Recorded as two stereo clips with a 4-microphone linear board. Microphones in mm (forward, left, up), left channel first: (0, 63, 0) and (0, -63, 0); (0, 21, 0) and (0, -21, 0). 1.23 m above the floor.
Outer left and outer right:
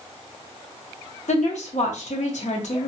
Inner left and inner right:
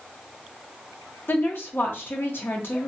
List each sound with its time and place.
1.3 s a woman speaking: 85° left, 0.8 m